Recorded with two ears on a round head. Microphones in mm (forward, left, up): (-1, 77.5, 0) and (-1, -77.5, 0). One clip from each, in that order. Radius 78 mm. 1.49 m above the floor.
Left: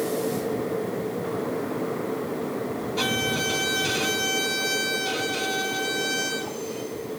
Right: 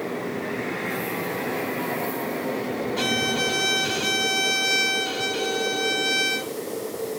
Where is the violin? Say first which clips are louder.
Right 1 dB; 40° right (ahead or behind), 2 m.